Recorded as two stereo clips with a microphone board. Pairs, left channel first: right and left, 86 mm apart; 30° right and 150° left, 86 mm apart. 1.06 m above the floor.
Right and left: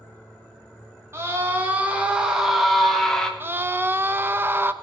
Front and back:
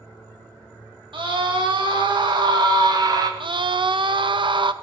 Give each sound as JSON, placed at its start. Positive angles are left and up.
{"t": 1.1, "sound": "a scream", "azimuth_deg": 145, "distance_m": 1.6}
{"t": 3.4, "sound": "a scream", "azimuth_deg": 150, "distance_m": 0.8}